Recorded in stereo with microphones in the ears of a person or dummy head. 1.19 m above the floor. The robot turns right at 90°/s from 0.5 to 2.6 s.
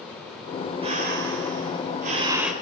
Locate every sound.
0.8 s breathing: 155° right, 3 m; by 2.5 s straight ahead, 3 m